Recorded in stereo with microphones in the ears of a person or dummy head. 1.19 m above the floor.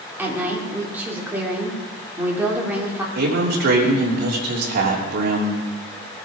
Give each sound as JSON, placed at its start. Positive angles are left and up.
{"t": 0.2, "sound": "a woman speaking", "side_deg": -5, "distance_m": 2.5}
{"t": 3.1, "sound": "a man speaking", "side_deg": -50, "distance_m": 3.0}